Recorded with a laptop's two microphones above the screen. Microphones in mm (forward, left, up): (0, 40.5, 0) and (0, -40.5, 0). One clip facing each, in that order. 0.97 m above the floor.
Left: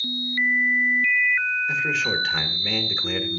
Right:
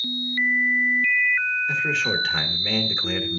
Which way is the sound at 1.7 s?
5° right (ahead or behind).